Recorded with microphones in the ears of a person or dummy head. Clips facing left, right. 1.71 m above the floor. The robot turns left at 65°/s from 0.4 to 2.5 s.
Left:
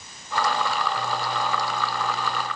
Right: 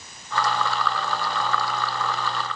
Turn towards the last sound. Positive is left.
No sound to turn to.